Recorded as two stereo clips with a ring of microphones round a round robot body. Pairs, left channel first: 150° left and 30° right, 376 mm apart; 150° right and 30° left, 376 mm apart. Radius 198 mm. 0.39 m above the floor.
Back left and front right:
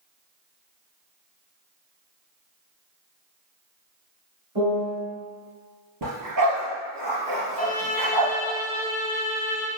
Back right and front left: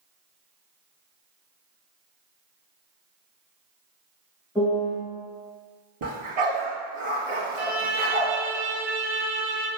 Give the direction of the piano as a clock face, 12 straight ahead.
2 o'clock.